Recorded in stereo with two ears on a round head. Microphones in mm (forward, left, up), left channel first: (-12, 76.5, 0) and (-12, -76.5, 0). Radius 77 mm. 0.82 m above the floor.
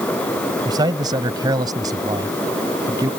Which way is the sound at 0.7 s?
25° right (ahead or behind).